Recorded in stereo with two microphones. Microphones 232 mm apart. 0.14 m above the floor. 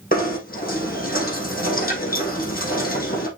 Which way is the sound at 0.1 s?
40° left (ahead or behind).